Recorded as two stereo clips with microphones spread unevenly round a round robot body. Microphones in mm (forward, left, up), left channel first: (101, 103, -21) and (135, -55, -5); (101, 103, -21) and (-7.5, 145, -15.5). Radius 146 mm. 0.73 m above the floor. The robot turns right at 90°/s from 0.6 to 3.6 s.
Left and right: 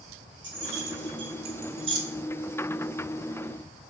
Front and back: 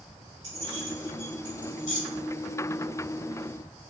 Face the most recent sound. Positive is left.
turn(degrees=140)